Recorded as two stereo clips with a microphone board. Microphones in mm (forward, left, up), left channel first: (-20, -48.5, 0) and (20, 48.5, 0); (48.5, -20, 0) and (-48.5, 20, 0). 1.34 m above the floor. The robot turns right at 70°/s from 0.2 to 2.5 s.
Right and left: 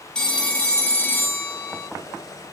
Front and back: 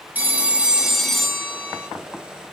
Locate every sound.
0.1 s a phone ringing: 175° right, 0.6 m; by 1.9 s 60° right, 0.6 m